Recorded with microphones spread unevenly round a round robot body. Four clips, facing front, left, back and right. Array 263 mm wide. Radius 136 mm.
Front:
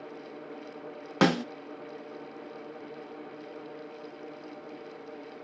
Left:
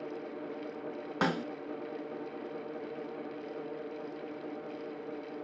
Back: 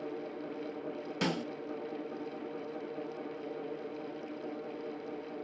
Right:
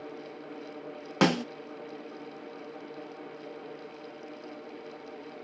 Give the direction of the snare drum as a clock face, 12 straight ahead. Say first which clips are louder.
Right 6 dB, front 10 dB; 1 o'clock.